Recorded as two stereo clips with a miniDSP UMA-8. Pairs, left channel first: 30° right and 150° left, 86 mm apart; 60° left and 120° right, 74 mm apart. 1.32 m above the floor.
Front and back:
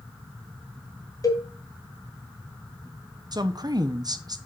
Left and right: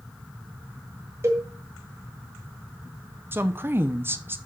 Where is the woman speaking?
Straight behind, 0.8 m.